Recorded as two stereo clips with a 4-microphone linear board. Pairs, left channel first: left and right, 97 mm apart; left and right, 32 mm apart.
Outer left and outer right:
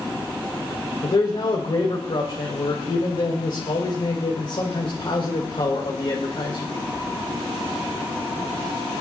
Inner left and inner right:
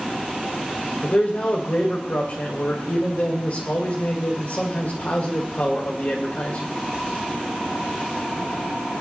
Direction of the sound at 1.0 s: 55° left (ahead or behind).